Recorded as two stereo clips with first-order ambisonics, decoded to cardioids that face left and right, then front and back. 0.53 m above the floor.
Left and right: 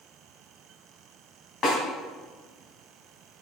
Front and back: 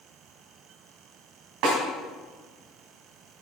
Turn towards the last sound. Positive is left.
turn(degrees=150)